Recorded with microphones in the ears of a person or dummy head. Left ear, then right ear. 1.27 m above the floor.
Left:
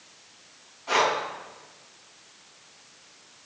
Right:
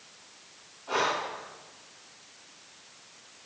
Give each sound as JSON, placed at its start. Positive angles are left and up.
{"t": 0.9, "sound": "breathing", "side_deg": 80, "distance_m": 6.5}